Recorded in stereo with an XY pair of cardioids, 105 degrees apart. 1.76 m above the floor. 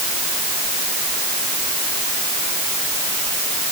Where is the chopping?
I don't hear chopping.